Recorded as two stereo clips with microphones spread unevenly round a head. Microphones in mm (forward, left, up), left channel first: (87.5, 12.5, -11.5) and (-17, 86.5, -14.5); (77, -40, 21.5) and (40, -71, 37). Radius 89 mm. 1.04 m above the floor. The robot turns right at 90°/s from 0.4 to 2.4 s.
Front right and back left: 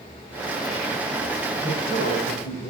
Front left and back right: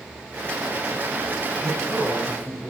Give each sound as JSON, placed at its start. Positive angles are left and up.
{"t": 1.6, "sound": "a man speaking", "azimuth_deg": -115, "distance_m": 8.0}